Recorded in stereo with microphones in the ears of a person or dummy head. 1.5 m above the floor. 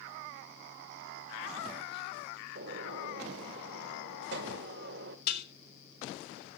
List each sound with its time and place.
2.5 s a gunshot: 60° right (ahead or behind), 1.8 m
5.3 s dishes clattering: 65° left (ahead or behind), 3.5 m